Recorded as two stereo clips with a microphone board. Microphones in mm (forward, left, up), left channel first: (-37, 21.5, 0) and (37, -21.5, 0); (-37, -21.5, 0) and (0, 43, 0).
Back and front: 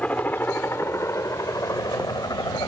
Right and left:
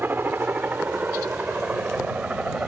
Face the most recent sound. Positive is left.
turn(degrees=130)